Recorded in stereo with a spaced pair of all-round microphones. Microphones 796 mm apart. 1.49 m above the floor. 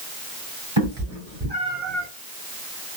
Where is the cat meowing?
35° right (ahead or behind), 1.5 m; by 2.1 s 5° left (ahead or behind), 1.5 m.